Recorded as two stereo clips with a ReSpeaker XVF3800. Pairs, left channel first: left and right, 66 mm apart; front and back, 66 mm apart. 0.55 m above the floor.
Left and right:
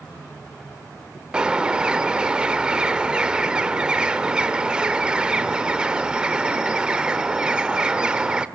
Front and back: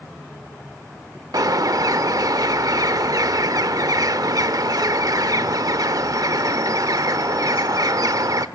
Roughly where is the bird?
Behind.